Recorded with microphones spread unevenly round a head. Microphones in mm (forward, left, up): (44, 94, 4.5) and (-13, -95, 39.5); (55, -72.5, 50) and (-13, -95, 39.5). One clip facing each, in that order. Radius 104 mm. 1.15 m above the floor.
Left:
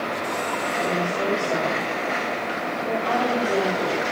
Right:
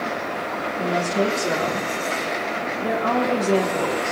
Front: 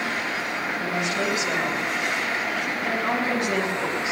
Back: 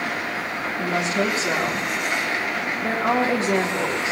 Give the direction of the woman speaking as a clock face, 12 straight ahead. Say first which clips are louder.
Right 4 dB, back 5 dB; 4 o'clock.